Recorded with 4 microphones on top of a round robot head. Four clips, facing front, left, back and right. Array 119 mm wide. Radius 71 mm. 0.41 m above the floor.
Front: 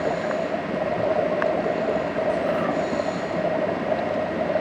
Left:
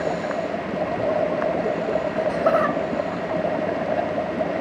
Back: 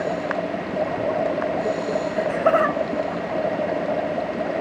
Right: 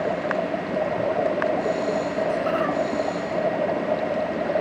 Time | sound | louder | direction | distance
2.2 | laughter | left 6 dB, back 4 dB | 155° left | 2 m